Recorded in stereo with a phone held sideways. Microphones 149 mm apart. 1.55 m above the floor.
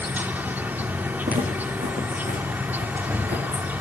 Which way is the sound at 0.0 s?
10° right (ahead or behind).